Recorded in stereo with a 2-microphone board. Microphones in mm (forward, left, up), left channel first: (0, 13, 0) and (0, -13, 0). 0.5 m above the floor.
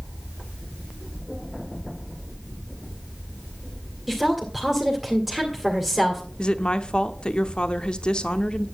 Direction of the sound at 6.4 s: 40° left (ahead or behind).